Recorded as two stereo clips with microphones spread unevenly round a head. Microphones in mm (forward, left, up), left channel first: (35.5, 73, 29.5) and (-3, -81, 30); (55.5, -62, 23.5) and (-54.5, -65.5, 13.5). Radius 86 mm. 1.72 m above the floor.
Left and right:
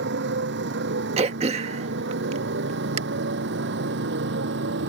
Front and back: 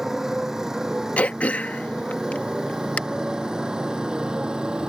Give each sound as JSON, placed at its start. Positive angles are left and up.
{"t": 0.0, "sound": "a motorcycle", "azimuth_deg": -90}
{"t": 1.2, "sound": "throat clearing", "azimuth_deg": -65}